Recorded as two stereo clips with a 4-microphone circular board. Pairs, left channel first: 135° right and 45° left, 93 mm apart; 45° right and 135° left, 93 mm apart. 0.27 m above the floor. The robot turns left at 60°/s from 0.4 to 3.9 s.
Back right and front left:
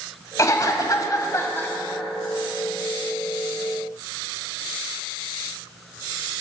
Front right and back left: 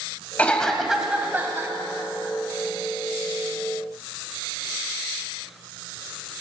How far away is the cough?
About 2.0 m.